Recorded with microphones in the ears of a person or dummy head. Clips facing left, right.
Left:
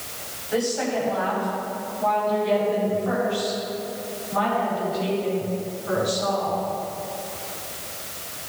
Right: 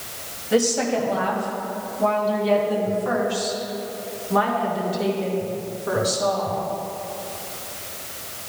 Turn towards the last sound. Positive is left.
turn(degrees=-65)  # may be behind; listen again after turning